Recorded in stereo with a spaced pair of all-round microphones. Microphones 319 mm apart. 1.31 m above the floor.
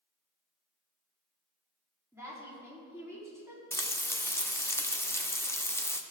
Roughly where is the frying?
Centre.